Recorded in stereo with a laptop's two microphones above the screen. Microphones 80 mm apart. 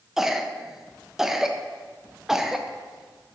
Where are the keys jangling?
No keys jangling in this recording.